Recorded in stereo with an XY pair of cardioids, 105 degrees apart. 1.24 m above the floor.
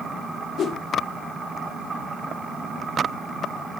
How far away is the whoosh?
About 1.4 m.